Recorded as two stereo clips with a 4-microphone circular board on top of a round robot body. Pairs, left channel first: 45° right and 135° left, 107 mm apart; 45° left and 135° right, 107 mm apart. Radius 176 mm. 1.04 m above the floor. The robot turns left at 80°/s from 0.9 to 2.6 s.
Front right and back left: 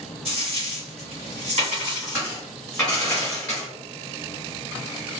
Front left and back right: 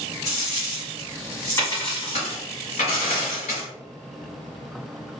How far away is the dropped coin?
About 1.3 m.